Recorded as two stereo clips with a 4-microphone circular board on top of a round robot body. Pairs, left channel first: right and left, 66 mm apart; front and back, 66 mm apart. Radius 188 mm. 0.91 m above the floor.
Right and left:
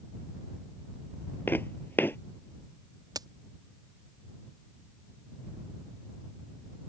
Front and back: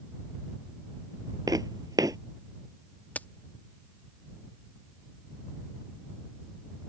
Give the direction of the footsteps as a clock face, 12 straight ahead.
5 o'clock.